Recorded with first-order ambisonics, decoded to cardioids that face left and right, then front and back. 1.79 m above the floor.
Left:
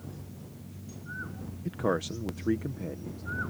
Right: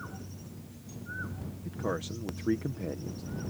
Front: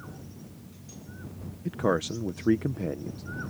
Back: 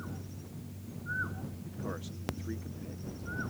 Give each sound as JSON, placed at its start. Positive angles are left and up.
{"t": 1.6, "sound": "a man speaking", "azimuth_deg": 25}